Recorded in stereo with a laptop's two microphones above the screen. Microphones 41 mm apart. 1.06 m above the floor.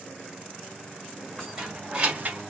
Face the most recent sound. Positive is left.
turn(degrees=-60)  # may be behind; listen again after turning